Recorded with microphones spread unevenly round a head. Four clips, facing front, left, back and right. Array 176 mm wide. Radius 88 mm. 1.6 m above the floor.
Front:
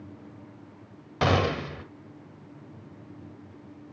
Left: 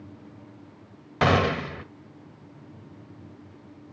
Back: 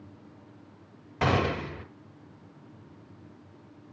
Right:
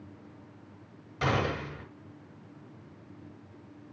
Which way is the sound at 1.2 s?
60° left.